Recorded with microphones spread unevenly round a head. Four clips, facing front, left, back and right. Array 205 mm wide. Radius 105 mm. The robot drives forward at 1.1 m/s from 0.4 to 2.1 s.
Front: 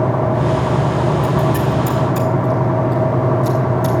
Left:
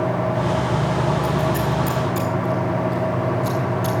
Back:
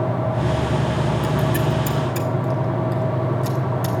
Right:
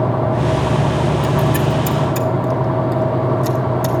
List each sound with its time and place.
1.2 s scissors: 100° right, 1.2 m; by 4.0 s 135° right, 1.7 m